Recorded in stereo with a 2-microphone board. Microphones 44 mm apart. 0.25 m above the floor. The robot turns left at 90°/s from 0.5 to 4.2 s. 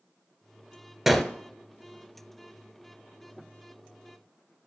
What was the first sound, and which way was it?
A gunshot, 5° right (ahead or behind).